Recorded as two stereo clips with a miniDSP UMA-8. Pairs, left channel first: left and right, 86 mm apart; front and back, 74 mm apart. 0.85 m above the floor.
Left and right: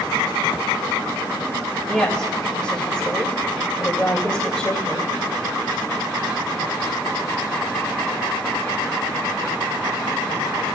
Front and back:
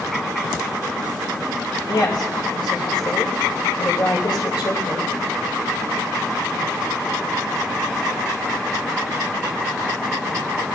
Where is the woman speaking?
10° left, 3 m.